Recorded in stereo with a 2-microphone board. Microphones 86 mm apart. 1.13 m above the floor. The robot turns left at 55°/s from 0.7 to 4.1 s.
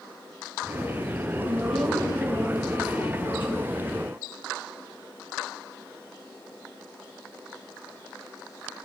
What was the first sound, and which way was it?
A woman speaking, 160° right.